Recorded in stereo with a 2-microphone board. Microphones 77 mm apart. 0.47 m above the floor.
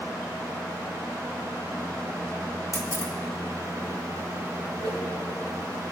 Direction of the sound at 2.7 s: 45° left (ahead or behind).